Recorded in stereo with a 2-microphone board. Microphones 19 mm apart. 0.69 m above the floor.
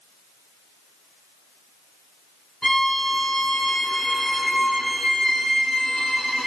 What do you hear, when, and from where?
2.6 s a violin: 30° left (ahead or behind), 1.1 m